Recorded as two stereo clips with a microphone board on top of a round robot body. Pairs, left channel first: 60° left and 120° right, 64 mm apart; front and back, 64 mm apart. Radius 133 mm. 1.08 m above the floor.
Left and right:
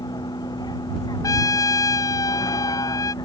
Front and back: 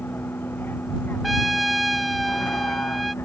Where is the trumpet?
90° left.